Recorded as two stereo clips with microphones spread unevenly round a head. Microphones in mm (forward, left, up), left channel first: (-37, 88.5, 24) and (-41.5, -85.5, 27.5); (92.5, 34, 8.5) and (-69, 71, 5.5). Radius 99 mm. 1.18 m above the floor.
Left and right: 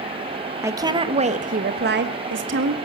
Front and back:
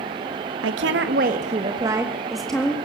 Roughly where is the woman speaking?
Behind.